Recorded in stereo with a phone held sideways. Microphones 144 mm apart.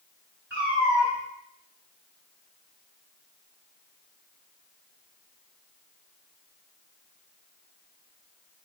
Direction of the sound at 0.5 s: 10° right (ahead or behind).